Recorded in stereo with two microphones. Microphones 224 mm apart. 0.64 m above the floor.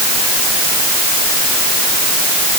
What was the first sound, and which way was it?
Only background noise.